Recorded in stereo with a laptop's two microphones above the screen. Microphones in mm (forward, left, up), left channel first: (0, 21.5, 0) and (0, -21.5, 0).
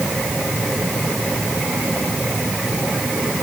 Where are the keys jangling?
I don't hear keys jangling.